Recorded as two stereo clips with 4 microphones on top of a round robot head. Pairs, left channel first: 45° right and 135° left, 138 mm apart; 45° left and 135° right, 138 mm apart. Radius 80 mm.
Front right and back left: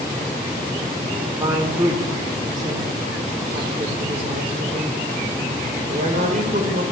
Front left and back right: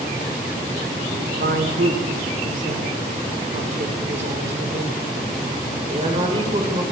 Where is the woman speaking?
150° right, 4 m; by 6.8 s 170° left, 5 m.